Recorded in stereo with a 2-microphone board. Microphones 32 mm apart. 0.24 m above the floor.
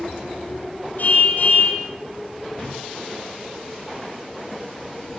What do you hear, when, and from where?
1.0 s a car horn: 55° left (ahead or behind), 5 m